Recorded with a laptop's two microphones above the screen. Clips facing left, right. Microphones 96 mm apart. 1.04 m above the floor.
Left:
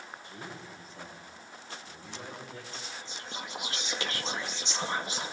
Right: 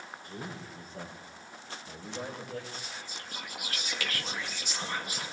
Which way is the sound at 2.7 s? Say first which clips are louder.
Even; 25° left (ahead or behind).